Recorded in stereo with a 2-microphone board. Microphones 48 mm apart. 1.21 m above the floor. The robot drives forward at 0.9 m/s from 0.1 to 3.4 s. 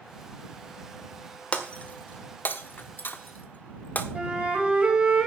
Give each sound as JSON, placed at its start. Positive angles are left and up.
{"t": 1.5, "sound": "breaking glass", "side_deg": 30, "distance_m": 1.5}
{"t": 4.2, "sound": "a flute", "side_deg": -20, "distance_m": 3.0}